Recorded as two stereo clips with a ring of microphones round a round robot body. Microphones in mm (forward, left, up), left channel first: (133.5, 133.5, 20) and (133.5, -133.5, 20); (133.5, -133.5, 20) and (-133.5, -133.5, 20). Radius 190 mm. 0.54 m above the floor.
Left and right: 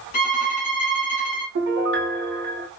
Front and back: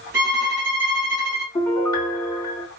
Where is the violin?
120° left, 1.1 m.